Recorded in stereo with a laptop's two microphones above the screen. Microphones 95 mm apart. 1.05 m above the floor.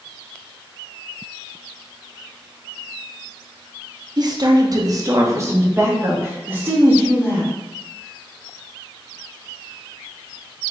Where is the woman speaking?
45° right (ahead or behind), 0.7 m; by 7.5 s 15° right (ahead or behind), 2 m.